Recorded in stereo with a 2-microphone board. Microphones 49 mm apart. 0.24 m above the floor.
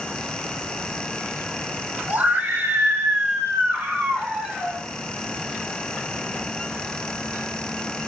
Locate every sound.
2.1 s a scream: 40° right (ahead or behind), 1.9 m; by 4.8 s 20° right (ahead or behind), 2.5 m